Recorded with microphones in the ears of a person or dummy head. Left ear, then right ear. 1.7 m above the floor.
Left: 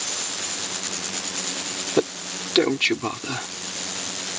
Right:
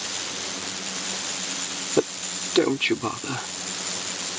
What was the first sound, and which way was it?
A man speaking, 20° left (ahead or behind).